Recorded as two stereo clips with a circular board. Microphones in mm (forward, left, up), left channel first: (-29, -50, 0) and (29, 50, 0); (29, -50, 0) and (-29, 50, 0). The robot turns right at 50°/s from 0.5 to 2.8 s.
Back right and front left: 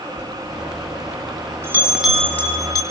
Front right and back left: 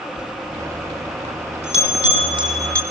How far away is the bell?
About 4 m.